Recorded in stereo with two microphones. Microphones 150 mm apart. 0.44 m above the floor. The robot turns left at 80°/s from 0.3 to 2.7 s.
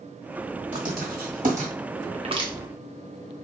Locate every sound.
0.7 s writing: 50° right (ahead or behind), 1.5 m; by 1.7 s 45° right (ahead or behind), 1.5 m
2.1 s crushing: 50° right (ahead or behind), 0.7 m; by 2.5 s 25° right (ahead or behind), 0.7 m